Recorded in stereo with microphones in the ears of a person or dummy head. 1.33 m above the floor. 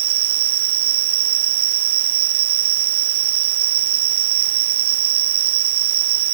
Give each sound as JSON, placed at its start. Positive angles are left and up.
{"t": 0.0, "sound": "an insect", "side_deg": -50}